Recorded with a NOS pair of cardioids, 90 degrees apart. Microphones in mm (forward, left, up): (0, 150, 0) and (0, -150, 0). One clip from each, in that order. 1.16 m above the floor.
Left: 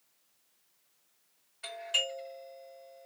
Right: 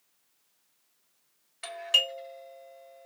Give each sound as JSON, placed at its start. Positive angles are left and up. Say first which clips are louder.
{"t": 1.6, "sound": "a doorbell", "louder": "right 6 dB", "azimuth_deg": -55, "distance_m": 1.8}